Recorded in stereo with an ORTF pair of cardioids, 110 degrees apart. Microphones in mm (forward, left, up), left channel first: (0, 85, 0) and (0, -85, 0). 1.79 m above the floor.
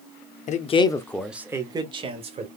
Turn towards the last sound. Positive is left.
turn(degrees=-40)